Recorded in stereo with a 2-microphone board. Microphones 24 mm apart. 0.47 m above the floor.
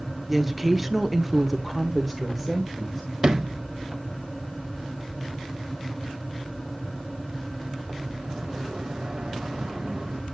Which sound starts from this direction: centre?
A woman speaking, at 0.3 s.